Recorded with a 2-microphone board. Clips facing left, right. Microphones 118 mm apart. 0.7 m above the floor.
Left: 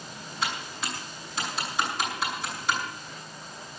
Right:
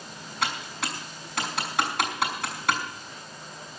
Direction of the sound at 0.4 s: 80° right.